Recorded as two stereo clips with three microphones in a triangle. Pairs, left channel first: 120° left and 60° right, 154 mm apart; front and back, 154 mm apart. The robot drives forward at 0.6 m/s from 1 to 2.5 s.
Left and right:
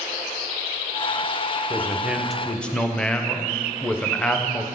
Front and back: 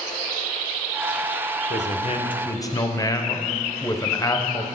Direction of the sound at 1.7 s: 15° left.